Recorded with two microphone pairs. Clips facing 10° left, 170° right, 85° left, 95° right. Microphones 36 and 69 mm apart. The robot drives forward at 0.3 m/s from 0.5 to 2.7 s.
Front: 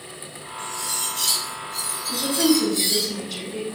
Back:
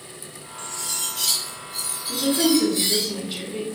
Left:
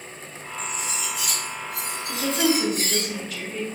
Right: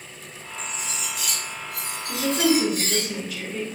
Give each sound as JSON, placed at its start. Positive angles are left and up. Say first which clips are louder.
{"t": 0.6, "sound": "cutlery clinking", "louder": "front 2 dB, left 2 dB", "azimuth_deg": -70, "distance_m": 0.7}
{"t": 2.1, "sound": "a woman speaking", "louder": "even, right 2 dB", "azimuth_deg": -170, "distance_m": 0.7}